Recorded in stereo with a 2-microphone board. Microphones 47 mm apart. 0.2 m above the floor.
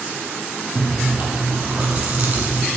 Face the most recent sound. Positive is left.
turn(degrees=-30)  # may be behind; listen again after turning